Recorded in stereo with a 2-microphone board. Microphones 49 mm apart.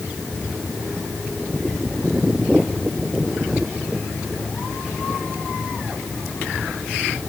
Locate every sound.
Only background noise.